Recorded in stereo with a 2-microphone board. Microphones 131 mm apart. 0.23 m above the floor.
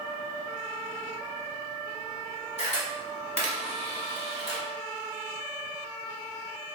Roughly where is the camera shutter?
Left.